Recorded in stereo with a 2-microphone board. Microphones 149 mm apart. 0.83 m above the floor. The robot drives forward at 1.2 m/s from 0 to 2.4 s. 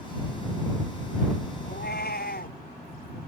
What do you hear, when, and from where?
1.6 s a cat meowing: 85° left; by 2.6 s 80° left